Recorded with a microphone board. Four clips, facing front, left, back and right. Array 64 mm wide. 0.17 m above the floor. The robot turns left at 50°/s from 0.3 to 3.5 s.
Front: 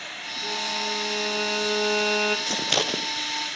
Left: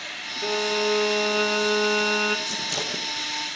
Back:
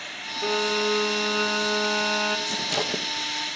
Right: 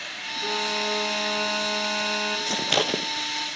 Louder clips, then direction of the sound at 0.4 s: Left 4 dB, back 6 dB; 145° left.